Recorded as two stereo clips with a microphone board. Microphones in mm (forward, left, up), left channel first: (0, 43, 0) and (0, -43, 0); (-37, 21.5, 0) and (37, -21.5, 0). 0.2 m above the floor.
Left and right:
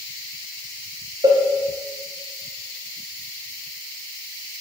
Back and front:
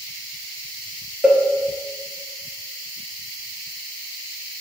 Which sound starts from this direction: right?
A cowbell, at 1.2 s.